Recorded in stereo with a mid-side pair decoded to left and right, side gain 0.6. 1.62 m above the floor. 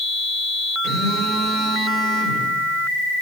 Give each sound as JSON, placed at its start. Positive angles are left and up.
{"t": 0.8, "sound": "a phone buzzing", "azimuth_deg": -50, "distance_m": 4.0}